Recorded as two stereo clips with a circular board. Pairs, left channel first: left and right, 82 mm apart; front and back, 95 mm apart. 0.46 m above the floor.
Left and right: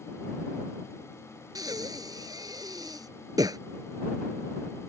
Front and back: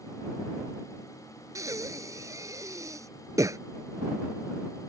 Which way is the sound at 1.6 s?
125° right.